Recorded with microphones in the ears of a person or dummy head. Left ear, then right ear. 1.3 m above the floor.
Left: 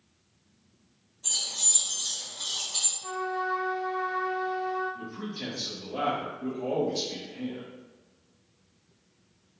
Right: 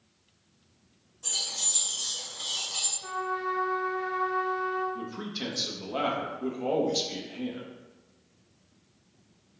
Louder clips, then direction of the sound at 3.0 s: Left 1 dB; 15° left (ahead or behind).